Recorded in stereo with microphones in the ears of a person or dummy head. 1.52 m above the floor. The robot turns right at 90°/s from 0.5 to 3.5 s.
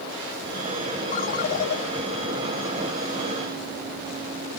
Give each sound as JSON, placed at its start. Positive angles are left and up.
{"t": 1.1, "sound": "a ringtone", "azimuth_deg": 50}